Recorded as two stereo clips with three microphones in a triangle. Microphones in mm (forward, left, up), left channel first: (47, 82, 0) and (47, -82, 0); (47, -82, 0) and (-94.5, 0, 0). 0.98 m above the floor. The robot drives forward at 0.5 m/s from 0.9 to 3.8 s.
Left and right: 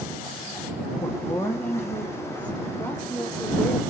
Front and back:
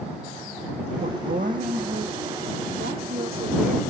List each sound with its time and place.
1.0 s a woman speaking: 165° left, 1.1 m; by 3.8 s 175° left, 2.5 m